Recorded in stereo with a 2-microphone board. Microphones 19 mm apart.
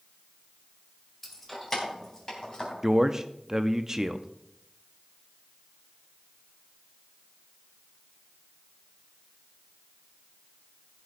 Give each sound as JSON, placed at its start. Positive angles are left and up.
{"t": 1.2, "sound": "keys jangling", "side_deg": 5, "distance_m": 2.0}
{"t": 2.8, "sound": "a man speaking", "side_deg": -20, "distance_m": 0.6}